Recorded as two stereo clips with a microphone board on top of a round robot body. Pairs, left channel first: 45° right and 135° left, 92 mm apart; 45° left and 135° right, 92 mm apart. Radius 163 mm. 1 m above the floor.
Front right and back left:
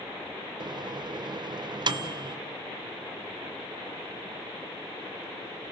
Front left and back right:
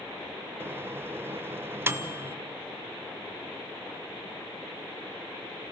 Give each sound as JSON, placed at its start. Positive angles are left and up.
{"t": 0.6, "sound": "a microwave", "azimuth_deg": 165, "distance_m": 0.9}